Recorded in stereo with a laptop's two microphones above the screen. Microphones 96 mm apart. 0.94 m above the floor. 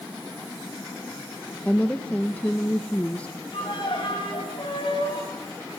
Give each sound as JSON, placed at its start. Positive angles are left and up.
{"t": 1.6, "sound": "a woman speaking", "side_deg": 15, "distance_m": 0.9}
{"t": 3.5, "sound": "a violin", "side_deg": 60, "distance_m": 6.0}